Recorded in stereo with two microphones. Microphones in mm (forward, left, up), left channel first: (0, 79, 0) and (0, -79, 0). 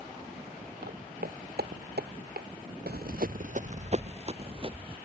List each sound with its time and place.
0.8 s footsteps: 80° right; by 2.5 s 85° right
2.9 s running footsteps: 80° right; by 5.0 s 35° right (ahead or behind)